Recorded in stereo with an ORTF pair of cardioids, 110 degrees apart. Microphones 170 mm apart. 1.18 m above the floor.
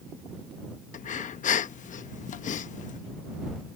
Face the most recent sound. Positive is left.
turn(degrees=45)